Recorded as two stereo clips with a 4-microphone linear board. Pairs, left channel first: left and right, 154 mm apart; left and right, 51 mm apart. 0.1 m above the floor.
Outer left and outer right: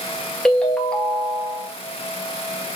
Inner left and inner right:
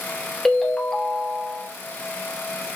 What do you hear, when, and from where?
0.5 s a ringtone: 5° left (ahead or behind), 0.9 m